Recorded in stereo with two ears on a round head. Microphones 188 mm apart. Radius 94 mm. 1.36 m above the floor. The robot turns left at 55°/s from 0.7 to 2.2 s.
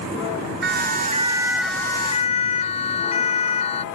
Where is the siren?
55° right (ahead or behind); by 3.9 s 30° left (ahead or behind).